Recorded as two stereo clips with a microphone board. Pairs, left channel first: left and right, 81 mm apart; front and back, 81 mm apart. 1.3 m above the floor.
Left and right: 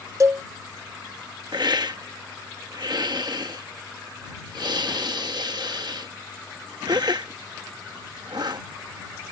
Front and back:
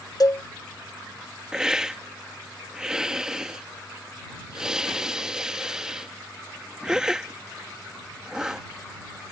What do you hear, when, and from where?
0.2 s a cowbell: 40° right
1.5 s a hiss: 100° right